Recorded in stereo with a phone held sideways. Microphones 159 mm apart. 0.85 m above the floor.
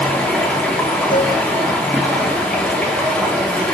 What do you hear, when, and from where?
0.0 s running water: 10° left (ahead or behind), 0.7 m
1.1 s a cowbell: 30° left (ahead or behind), 1.2 m